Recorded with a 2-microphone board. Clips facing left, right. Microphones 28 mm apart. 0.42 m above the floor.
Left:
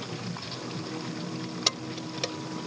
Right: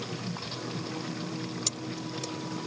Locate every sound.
1.7 s keys jangling: 55° left (ahead or behind)